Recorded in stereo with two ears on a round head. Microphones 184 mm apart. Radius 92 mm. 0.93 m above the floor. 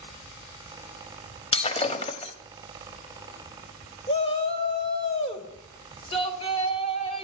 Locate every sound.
1.5 s breaking glass: 30° left (ahead or behind), 1.4 m
4.1 s a shout: 30° left (ahead or behind), 3.5 m